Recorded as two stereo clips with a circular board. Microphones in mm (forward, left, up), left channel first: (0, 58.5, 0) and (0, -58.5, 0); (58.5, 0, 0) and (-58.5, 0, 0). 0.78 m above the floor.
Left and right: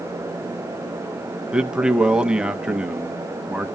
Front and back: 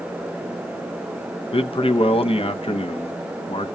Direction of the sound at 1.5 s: 10° right.